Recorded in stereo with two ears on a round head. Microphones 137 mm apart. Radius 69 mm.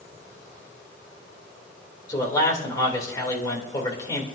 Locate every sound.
2.1 s a man speaking: 25° left (ahead or behind), 3.5 m